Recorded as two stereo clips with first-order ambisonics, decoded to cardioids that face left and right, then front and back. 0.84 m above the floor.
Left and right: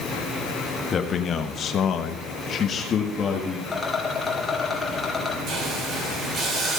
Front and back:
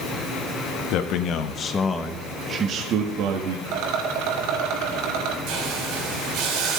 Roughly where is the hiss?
Behind right.